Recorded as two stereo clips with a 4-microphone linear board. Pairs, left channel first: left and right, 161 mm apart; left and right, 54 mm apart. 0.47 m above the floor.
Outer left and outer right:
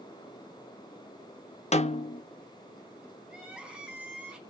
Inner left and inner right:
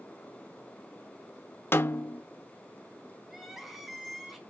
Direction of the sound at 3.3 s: 5° right (ahead or behind).